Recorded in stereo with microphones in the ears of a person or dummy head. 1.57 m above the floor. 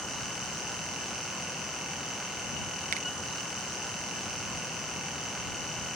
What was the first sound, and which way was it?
A finger snap, 45° right (ahead or behind).